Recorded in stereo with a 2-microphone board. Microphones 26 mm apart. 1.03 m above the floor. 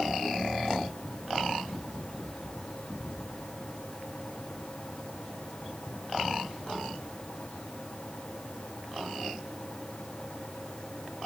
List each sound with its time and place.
Only background noise.